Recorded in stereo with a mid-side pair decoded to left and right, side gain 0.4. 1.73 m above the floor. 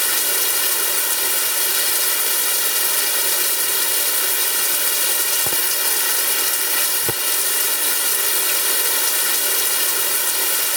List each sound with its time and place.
0.0 s running water: 10° left